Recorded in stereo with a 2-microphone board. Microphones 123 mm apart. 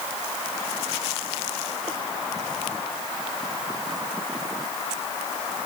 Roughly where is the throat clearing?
I don't hear throat clearing.